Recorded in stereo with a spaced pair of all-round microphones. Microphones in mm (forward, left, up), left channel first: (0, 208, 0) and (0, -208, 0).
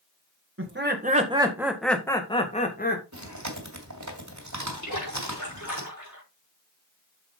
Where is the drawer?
No drawer in this recording.